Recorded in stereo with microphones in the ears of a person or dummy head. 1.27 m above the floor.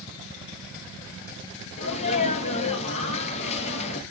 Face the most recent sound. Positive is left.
turn(degrees=45)  # may be behind; listen again after turning